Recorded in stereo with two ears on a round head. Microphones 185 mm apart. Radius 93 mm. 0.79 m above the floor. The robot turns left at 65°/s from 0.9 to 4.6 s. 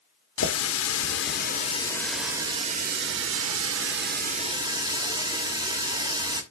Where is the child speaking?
I don't hear a child speaking.